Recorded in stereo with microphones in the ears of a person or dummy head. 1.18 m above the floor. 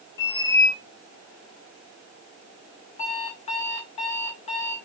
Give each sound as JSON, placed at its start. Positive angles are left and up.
{"t": 0.2, "sound": "a squeak", "side_deg": 20, "distance_m": 0.9}
{"t": 3.0, "sound": "an alarm clock", "side_deg": 35, "distance_m": 2.0}